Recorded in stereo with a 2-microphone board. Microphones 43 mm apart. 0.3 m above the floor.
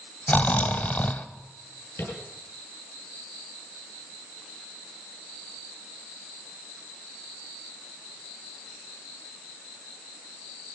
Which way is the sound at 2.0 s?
55° left (ahead or behind).